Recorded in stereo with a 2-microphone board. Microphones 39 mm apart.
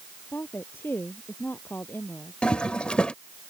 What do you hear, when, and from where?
0.3 s a woman speaking: 65° left (ahead or behind)
2.4 s a toilet flushing: 25° left (ahead or behind)